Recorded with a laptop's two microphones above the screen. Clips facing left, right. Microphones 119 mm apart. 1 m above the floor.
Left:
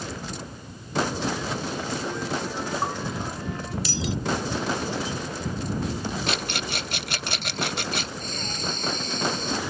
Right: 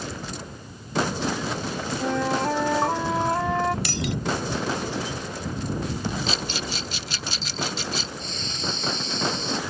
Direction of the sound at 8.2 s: 50° left (ahead or behind).